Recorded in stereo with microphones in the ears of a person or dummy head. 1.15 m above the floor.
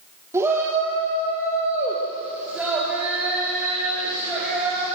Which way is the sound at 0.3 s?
15° right (ahead or behind).